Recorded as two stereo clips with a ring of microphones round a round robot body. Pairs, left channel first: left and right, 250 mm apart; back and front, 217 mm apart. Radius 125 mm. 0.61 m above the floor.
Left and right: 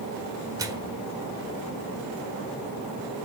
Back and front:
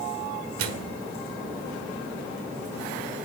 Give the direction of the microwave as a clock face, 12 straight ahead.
12 o'clock.